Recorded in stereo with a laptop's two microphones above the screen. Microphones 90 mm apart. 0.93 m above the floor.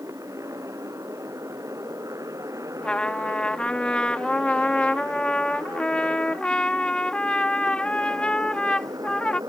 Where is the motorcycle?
35° right (ahead or behind); by 9.5 s 45° right (ahead or behind).